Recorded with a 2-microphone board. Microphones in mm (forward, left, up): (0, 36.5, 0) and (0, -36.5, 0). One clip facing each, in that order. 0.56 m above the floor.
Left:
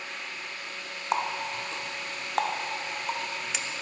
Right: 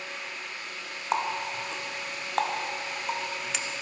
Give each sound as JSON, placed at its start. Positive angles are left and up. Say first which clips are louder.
{"t": 1.1, "sound": "a running tap", "louder": "even", "side_deg": 0, "distance_m": 0.7}